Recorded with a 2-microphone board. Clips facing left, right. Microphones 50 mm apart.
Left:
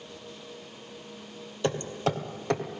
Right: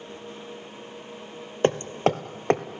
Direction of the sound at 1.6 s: 40° right (ahead or behind).